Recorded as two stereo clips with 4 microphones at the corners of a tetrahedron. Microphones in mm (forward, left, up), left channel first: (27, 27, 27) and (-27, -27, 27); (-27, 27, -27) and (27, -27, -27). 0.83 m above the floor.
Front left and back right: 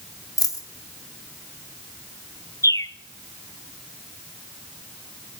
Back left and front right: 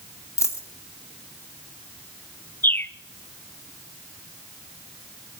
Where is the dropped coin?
85° left, 1.9 m.